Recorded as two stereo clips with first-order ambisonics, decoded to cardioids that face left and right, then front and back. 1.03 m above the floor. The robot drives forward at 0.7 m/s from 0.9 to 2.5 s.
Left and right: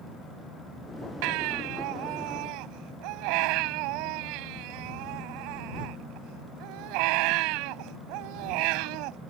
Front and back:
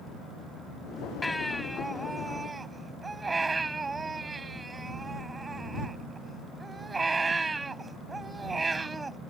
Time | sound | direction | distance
1.2 | a baby crying | 80° right | ?